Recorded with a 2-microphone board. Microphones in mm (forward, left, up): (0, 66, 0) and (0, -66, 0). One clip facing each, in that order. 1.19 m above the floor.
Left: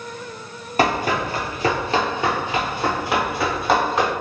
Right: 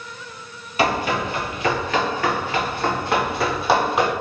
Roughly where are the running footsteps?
Left.